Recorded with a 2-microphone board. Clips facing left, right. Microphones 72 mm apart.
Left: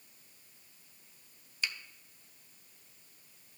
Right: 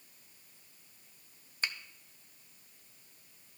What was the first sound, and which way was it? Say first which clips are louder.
A finger snap: even; 40° right (ahead or behind).